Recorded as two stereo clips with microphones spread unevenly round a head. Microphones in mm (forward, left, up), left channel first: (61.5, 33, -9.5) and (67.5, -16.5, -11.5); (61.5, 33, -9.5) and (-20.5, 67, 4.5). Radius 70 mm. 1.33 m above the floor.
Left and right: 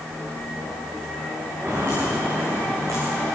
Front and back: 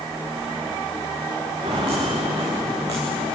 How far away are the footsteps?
About 7 m.